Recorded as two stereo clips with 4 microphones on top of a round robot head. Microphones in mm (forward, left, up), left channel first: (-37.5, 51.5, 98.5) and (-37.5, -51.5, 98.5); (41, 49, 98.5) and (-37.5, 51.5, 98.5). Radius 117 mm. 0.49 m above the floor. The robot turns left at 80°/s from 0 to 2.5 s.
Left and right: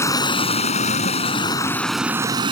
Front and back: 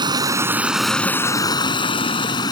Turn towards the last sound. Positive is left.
turn(degrees=-45)